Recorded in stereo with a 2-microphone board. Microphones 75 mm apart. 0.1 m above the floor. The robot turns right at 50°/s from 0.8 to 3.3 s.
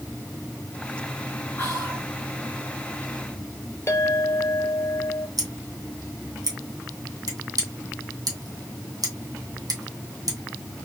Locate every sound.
1.6 s whispering: 25° left (ahead or behind), 1.6 m; by 2.1 s 20° left (ahead or behind), 1.6 m
3.9 s a clink: 40° left (ahead or behind), 1.0 m
5.4 s scissors: 65° right (ahead or behind), 2 m